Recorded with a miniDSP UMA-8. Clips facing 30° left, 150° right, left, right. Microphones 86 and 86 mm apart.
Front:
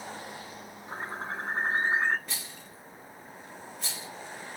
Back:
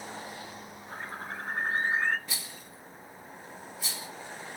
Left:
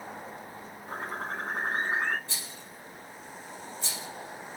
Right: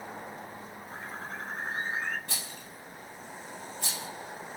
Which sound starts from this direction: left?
A bird, at 0.9 s.